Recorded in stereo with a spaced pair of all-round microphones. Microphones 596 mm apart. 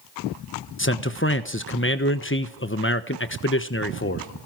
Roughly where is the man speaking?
Left.